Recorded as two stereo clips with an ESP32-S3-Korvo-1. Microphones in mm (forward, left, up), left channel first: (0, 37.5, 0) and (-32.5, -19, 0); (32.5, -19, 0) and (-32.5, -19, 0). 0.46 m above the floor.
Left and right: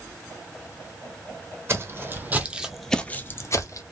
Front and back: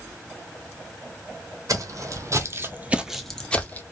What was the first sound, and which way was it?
Footsteps, 165° right.